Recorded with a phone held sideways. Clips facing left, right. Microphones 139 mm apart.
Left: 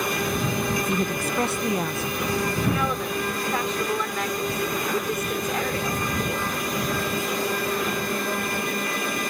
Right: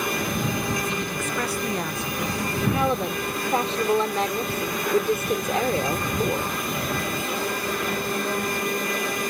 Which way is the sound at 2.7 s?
30° right (ahead or behind).